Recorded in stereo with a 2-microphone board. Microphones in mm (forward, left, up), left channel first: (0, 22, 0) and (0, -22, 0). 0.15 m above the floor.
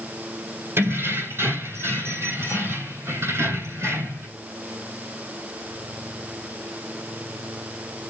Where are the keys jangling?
65° right (ahead or behind), 5 m; by 4.3 s 80° right, 5 m.